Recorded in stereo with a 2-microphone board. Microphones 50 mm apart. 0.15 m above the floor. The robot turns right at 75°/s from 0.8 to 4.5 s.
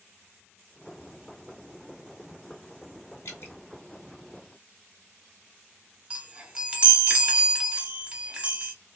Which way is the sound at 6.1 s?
20° right (ahead or behind).